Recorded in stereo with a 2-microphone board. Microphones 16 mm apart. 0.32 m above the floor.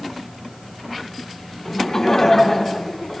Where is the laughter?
35° left (ahead or behind), 2.5 m.